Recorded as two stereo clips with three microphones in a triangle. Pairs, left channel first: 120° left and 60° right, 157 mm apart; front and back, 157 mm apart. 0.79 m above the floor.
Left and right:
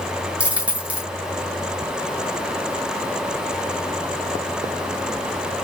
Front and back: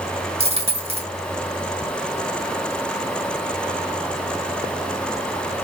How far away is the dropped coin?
About 1.4 m.